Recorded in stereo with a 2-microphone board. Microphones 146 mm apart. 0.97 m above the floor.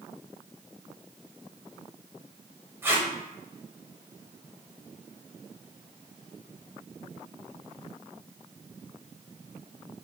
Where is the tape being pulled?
15° right (ahead or behind), 1.0 m.